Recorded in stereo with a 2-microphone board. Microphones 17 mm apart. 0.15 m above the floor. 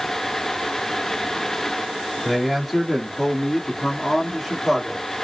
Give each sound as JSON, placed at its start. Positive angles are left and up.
{"t": 2.2, "sound": "a man speaking", "side_deg": 10, "distance_m": 1.3}